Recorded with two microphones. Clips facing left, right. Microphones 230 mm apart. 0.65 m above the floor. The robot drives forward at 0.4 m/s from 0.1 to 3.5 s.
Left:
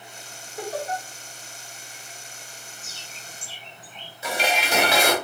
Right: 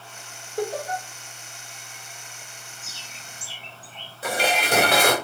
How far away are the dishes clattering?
About 1.2 m.